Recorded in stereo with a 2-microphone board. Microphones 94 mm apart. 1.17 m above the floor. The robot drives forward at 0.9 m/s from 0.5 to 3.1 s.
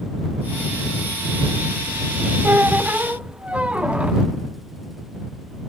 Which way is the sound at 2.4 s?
25° right (ahead or behind).